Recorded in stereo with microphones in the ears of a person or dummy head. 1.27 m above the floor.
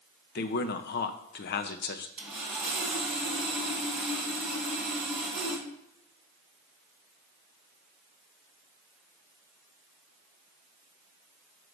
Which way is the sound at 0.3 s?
55° left (ahead or behind).